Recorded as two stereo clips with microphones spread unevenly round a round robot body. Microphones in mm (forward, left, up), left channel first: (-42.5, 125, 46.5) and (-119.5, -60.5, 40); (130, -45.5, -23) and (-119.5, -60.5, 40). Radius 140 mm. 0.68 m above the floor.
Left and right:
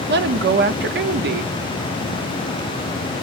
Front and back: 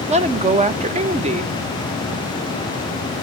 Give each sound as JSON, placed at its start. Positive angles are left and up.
{"t": 0.1, "sound": "a woman speaking", "azimuth_deg": -105, "distance_m": 1.0}